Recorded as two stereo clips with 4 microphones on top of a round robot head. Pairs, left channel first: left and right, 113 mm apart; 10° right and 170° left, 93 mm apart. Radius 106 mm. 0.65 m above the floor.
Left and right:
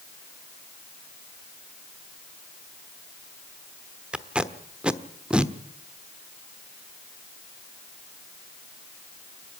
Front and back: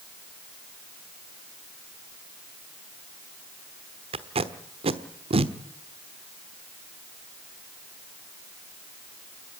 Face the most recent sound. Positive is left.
turn(degrees=-170)